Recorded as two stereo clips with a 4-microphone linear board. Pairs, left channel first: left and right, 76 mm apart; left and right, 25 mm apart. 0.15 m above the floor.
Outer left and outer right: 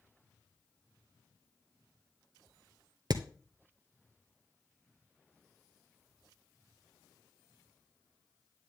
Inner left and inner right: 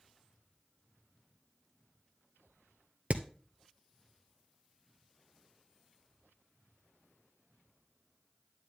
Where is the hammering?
60° right (ahead or behind), 0.9 m.